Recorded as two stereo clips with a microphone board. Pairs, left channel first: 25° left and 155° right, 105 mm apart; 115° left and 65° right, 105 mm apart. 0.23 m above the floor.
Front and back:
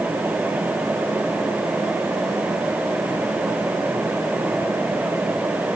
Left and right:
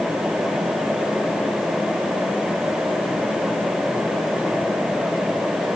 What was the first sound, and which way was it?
Only background noise.